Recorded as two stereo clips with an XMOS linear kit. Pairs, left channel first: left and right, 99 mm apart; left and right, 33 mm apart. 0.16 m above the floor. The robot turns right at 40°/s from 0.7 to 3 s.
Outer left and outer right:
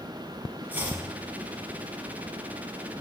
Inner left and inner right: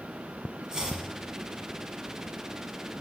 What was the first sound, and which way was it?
Chopping, 20° right (ahead or behind).